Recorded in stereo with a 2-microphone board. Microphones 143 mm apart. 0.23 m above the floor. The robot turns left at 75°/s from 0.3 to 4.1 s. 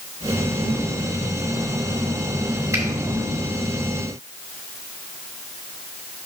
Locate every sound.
2.7 s a finger snap: 20° right (ahead or behind), 1.6 m; by 2.8 s 25° right (ahead or behind), 1.6 m